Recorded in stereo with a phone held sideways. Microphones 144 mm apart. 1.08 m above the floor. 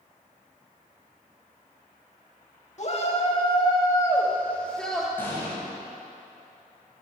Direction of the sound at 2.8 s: 50° left (ahead or behind).